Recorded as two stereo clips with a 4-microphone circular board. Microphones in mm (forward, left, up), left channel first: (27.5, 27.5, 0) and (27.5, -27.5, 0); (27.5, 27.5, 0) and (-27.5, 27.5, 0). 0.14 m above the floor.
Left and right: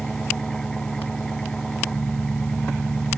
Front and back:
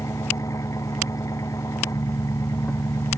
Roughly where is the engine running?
Ahead.